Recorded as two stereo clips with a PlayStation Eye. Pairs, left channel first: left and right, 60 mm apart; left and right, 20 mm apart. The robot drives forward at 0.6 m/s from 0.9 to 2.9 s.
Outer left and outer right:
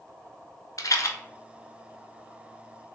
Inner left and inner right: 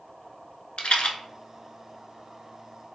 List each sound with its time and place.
0.8 s a rattle: 80° left, 0.5 m; by 1.2 s 65° left (ahead or behind), 0.6 m